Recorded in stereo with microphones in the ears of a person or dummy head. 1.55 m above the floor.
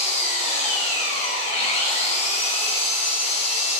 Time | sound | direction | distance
0.0 | an engine running | 35° left (ahead or behind) | 4 m